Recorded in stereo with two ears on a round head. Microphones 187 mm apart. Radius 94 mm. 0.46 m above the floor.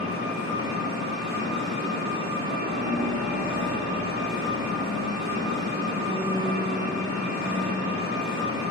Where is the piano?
20° right (ahead or behind), 1.1 m.